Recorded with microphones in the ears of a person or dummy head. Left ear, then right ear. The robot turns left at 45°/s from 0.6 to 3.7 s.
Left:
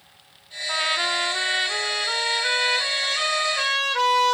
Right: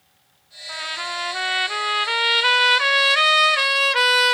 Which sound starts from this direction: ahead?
A trumpet, at 0.7 s.